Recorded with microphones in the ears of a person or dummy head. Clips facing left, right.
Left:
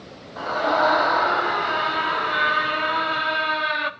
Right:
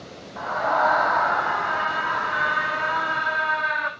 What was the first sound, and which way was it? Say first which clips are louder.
A scream: left 2 dB; 40° left (ahead or behind).